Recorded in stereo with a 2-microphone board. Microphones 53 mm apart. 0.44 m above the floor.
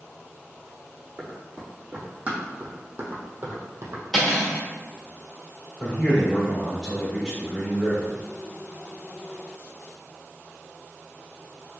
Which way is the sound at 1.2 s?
15° right (ahead or behind).